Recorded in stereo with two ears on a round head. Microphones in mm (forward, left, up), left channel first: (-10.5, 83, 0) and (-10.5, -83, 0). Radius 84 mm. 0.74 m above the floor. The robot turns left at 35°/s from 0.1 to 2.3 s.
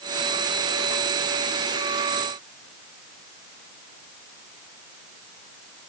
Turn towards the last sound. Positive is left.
No sound to turn to.